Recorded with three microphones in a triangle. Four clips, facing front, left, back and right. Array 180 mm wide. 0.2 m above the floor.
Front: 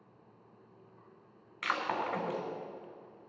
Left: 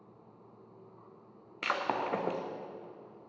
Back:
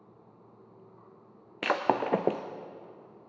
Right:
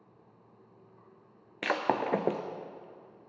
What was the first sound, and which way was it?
Breaking glass, 160° right.